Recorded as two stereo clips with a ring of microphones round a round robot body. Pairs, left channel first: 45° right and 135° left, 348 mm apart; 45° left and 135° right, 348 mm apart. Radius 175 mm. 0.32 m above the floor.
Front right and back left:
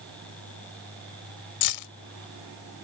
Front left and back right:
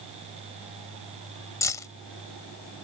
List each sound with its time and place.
1.6 s keys jangling: 35° right